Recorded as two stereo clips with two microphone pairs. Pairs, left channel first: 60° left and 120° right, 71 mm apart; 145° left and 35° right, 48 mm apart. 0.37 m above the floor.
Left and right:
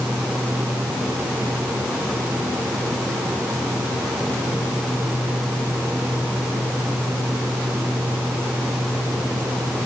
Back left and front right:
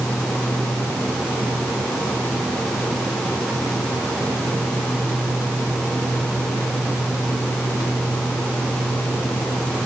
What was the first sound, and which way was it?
Only background noise.